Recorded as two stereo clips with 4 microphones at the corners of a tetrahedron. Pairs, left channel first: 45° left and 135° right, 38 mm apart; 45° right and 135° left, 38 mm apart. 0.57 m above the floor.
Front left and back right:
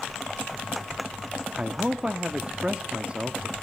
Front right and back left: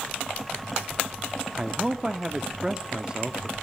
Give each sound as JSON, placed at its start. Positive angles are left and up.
{"t": 1.6, "sound": "a man speaking", "azimuth_deg": -175, "distance_m": 0.9}